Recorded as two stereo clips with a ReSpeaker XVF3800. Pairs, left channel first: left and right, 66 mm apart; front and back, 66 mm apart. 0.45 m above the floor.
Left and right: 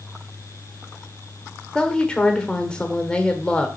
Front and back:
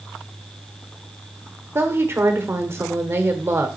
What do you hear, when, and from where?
1.8 s a woman speaking: 160° left, 1.1 m